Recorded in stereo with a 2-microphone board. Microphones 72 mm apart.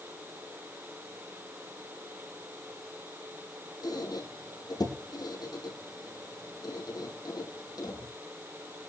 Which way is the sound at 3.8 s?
70° left (ahead or behind).